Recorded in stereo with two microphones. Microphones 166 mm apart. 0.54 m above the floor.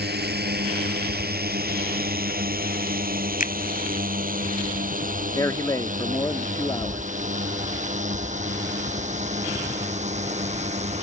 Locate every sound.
0.0 s a drone: 75° right (ahead or behind); by 11.0 s 40° right (ahead or behind)
3.4 s a finger snap: 55° left (ahead or behind)
5.3 s a man speaking: 20° left (ahead or behind)